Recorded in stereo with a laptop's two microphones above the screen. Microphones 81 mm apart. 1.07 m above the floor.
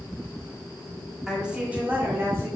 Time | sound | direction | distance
1.3 | a woman speaking | 10° right (ahead or behind) | 2.5 m